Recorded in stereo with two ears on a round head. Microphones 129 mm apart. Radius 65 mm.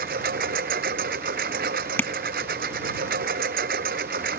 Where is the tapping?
15° left (ahead or behind).